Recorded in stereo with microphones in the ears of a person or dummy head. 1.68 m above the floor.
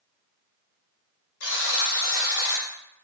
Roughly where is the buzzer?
Left.